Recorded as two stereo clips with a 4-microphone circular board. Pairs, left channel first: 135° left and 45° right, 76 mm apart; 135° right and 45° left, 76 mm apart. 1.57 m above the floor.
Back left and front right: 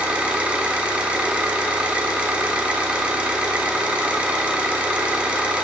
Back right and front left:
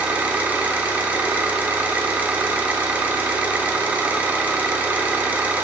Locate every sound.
0.0 s an engine running: 10° left, 1.2 m